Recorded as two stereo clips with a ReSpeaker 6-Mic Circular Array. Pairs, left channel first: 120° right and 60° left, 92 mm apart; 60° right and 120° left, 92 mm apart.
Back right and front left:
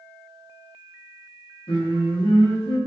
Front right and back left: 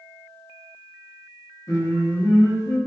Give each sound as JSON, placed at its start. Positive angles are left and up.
{"t": 1.7, "sound": "singing", "azimuth_deg": -110, "distance_m": 0.7}